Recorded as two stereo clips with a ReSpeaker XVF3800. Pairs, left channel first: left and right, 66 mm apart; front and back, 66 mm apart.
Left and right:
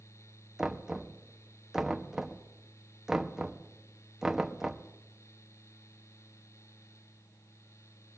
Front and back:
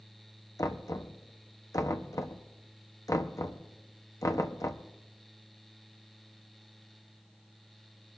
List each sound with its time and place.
0.6 s knocking: 10° right, 0.7 m